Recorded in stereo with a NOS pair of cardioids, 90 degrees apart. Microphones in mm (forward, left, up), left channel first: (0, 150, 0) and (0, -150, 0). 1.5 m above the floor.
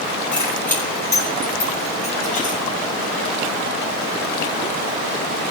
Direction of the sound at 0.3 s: 5° left.